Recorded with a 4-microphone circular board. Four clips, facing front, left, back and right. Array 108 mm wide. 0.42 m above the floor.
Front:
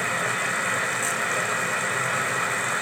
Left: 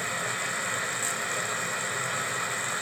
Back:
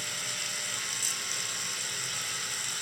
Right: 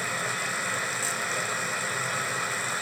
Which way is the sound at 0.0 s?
5° right.